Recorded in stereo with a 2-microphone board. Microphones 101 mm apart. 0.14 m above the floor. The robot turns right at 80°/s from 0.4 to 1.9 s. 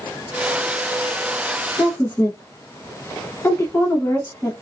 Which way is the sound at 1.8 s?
20° left (ahead or behind).